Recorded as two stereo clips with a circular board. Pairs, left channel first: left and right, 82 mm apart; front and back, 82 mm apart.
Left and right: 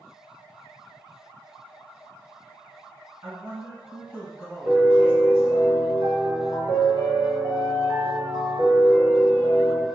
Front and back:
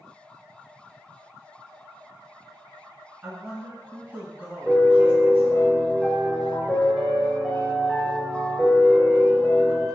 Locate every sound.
3.2 s a man speaking: 130° right, 1.7 m
4.7 s a piano: 90° right, 0.7 m